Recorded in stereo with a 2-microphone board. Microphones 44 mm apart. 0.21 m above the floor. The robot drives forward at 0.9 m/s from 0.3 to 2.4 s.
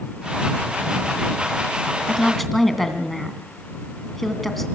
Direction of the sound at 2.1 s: 5° left (ahead or behind).